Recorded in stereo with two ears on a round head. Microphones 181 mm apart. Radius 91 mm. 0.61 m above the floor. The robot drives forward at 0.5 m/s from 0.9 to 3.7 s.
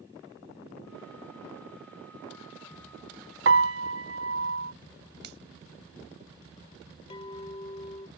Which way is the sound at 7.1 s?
25° left (ahead or behind).